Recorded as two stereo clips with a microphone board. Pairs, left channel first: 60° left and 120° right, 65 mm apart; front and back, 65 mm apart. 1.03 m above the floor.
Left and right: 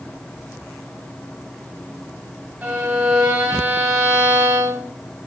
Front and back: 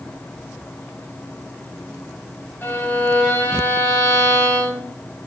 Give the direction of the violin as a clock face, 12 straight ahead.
2 o'clock.